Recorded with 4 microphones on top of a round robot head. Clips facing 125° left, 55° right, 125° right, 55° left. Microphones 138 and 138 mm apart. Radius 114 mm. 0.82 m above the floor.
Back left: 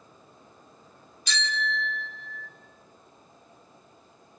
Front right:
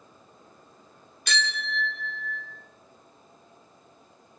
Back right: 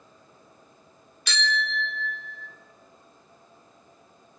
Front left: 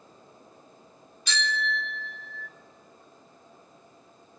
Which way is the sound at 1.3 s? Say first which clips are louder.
Even, back right 1 dB; 95° right.